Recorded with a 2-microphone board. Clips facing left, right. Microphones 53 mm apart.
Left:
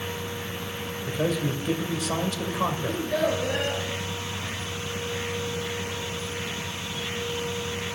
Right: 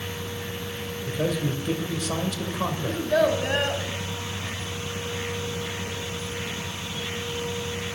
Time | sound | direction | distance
1.1 | a man speaking | 5° left (ahead or behind) | 2.5 m
2.9 | a child speaking | 70° right (ahead or behind) | 3 m